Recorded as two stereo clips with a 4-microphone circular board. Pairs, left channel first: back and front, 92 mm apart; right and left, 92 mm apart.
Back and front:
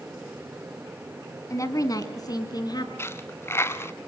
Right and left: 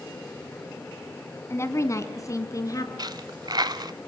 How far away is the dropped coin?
About 1.0 m.